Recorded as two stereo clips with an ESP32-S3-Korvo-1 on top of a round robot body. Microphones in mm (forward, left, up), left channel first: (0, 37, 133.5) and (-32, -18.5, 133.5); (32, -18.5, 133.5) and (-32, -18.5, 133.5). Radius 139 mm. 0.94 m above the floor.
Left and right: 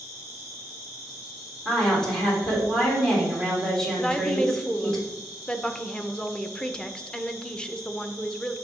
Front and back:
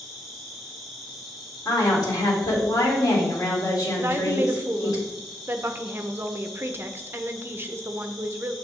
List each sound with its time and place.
0.0 s an insect: 90° left, 3 m
1.6 s a woman speaking: 20° right, 3 m
4.0 s a woman speaking: 135° left, 0.8 m